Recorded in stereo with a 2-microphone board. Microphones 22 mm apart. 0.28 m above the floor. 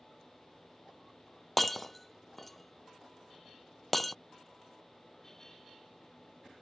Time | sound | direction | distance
1.6 | breaking glass | 10° left (ahead or behind) | ?